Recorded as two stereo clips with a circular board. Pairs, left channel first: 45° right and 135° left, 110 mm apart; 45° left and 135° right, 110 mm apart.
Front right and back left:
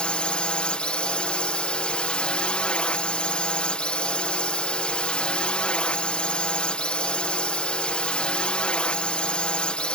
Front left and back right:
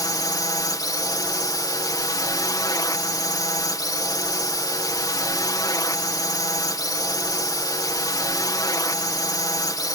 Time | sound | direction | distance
0.0 | a drone | 30° left | ?